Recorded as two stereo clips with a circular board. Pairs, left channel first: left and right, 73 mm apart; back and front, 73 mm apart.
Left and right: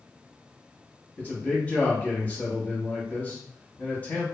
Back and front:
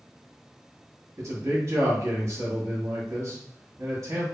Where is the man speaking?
30° left, 0.9 m.